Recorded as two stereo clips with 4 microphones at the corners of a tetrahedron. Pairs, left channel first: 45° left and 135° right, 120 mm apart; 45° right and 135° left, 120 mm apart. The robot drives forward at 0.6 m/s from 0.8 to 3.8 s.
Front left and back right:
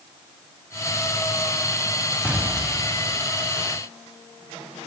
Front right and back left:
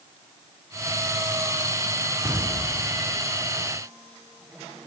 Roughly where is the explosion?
Behind left.